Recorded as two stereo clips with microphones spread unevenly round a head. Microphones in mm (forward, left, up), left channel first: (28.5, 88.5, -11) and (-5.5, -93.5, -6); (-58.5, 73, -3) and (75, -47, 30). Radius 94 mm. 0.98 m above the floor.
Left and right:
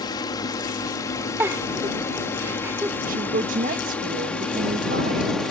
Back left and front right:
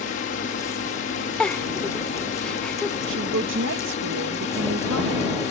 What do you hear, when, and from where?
0.0 s a drone: 145° left; by 5.5 s 165° left
1.4 s a giggle: 170° right
3.1 s a woman speaking: 60° right